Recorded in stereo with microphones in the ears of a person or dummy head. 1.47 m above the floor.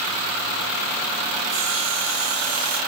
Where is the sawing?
40° right (ahead or behind), 5.5 m.